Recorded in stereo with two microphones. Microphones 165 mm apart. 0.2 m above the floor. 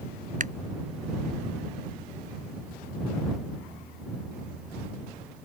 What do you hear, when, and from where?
0.4 s a finger snap: 55° right (ahead or behind)